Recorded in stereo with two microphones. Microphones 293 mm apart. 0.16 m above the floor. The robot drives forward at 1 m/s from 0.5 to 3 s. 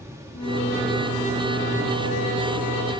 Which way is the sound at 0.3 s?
55° left (ahead or behind).